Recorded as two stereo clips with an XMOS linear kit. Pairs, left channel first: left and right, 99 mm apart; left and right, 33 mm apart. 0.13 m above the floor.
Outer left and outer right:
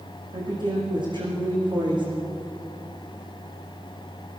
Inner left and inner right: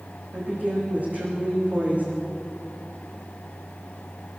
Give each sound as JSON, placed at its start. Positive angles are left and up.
{"t": 0.3, "sound": "a woman speaking", "side_deg": -50, "distance_m": 9.0}